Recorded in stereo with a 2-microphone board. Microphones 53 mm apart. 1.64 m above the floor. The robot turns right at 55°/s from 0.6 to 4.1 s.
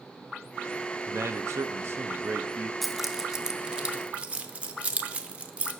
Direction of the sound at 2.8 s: Centre (ahead or behind).